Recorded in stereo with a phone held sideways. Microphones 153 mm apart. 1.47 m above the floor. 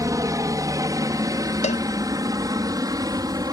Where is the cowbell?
50° left (ahead or behind).